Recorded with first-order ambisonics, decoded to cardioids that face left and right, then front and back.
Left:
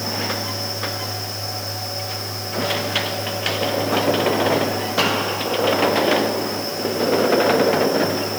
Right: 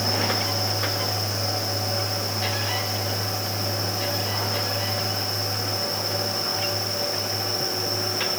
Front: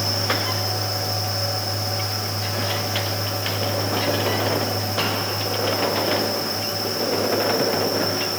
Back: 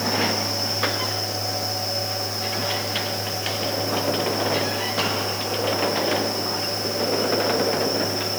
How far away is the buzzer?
No buzzer in this recording.